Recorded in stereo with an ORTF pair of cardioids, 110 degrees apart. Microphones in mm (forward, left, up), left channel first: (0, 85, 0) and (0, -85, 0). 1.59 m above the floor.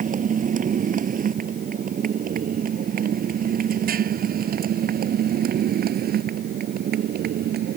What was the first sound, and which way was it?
A motorcycle, 45° right.